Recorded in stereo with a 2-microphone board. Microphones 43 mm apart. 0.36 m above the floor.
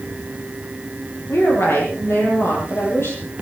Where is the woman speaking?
85° left, 8 m.